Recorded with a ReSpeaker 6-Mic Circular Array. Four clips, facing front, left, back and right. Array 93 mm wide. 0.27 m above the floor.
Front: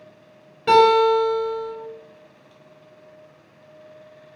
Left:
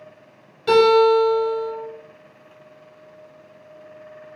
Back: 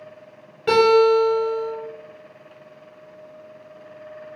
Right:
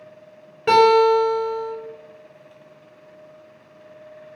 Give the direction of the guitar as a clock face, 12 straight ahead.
3 o'clock.